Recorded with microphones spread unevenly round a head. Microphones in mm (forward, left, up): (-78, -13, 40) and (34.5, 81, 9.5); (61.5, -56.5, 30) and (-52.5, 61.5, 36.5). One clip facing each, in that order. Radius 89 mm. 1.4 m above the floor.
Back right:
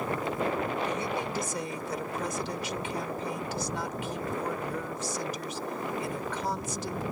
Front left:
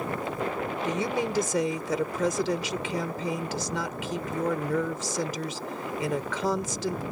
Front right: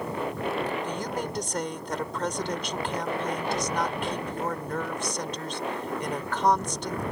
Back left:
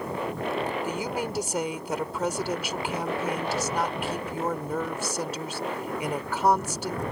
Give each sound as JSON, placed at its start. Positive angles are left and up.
{"t": 0.8, "sound": "a woman speaking", "azimuth_deg": 50}